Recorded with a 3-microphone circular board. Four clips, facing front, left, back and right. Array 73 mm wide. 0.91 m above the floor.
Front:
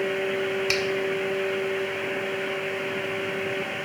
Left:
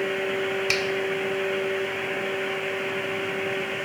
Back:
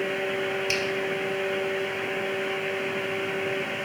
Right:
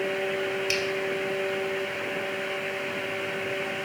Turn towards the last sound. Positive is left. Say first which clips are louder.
# left 2 dB, front 2 dB
turn(degrees=45)